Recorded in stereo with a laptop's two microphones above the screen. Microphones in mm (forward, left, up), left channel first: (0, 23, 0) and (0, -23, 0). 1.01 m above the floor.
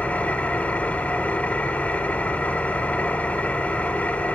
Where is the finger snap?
No finger snap in this recording.